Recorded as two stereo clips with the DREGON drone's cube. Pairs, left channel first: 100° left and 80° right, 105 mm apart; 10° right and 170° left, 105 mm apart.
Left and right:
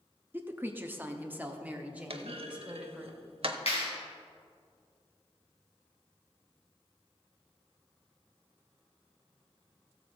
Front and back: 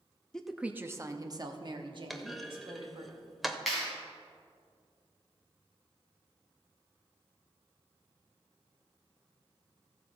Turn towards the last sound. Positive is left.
turn(degrees=80)